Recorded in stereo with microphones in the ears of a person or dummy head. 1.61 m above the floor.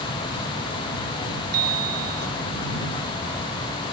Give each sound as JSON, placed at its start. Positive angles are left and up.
{"t": 1.5, "sound": "a bicycle bell", "side_deg": -50}